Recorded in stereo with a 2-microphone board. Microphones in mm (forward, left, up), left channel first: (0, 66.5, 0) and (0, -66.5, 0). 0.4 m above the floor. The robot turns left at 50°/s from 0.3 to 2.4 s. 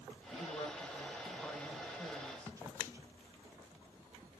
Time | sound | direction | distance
0.3 | a woman speaking | 70° left | 1.3 m